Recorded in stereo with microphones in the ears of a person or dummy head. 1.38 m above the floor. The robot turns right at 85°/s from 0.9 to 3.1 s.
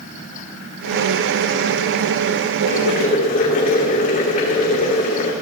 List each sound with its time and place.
2.7 s boiling: 90° left, 3 m; by 5.3 s 130° left, 3 m